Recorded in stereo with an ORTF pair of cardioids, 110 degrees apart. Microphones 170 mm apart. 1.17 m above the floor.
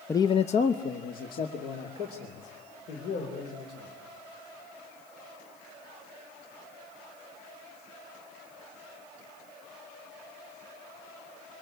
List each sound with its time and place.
0.1 s a man speaking: 10° left, 0.6 m; by 3.9 s 65° left, 5 m